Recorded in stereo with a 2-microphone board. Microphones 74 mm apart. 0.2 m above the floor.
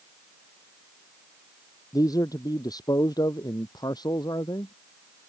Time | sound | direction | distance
1.9 | a man speaking | 60° left (ahead or behind) | ?